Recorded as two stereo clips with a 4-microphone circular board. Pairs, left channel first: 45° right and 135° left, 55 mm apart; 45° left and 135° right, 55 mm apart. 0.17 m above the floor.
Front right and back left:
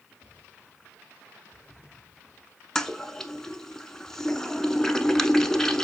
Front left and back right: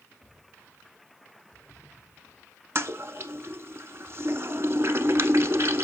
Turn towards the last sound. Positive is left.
turn(degrees=-125)